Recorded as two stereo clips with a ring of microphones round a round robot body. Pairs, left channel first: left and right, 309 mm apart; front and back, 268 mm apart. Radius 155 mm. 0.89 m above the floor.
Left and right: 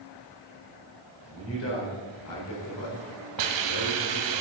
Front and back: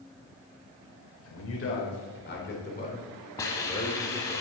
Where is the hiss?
80° right, 1.1 m.